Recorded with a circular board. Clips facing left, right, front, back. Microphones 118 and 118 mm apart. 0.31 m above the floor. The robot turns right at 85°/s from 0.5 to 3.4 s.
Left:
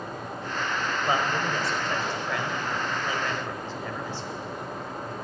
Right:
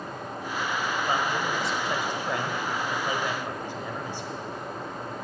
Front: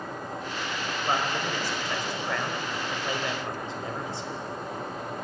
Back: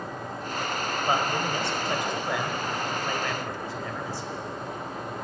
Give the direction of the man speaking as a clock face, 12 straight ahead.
8 o'clock.